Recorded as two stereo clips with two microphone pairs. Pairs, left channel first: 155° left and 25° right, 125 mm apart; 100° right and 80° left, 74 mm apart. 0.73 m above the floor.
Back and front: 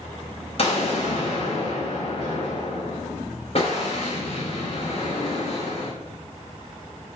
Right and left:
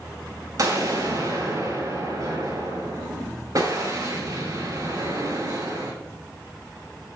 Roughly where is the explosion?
Behind left.